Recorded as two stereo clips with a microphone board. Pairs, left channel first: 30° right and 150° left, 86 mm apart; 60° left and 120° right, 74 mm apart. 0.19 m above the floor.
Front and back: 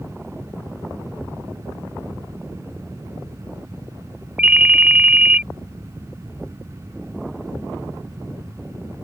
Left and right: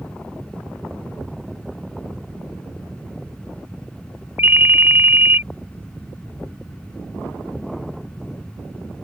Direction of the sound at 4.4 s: 145° right.